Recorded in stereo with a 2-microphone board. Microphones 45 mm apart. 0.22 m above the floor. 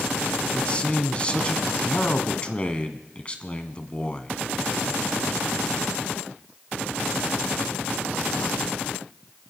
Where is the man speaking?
25° left (ahead or behind), 1.6 m.